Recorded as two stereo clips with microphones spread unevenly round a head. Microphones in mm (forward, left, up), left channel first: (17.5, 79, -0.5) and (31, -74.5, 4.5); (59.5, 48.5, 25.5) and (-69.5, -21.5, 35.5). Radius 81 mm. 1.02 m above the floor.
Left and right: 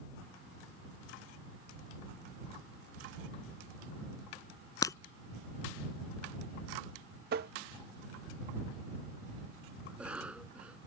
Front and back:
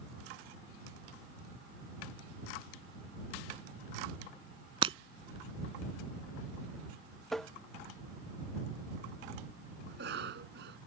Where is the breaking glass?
165° left.